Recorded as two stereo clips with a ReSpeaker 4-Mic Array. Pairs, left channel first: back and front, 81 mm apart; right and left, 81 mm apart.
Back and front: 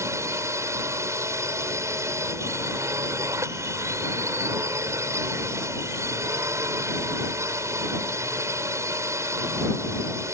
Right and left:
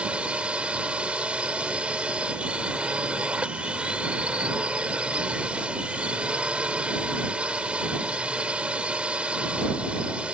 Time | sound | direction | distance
0.0 | a drone | 20° left | ?